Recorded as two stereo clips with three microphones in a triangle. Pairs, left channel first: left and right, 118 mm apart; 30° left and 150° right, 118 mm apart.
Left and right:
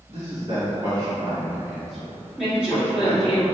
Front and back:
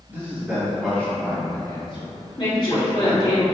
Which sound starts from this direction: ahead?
A woman speaking, at 2.4 s.